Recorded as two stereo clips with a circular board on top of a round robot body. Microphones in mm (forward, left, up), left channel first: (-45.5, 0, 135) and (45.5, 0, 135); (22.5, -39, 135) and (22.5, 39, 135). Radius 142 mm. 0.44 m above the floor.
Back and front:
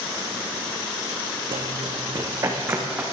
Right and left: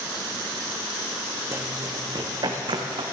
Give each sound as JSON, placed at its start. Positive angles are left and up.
{"t": 1.5, "sound": "running footsteps", "azimuth_deg": 30, "distance_m": 1.8}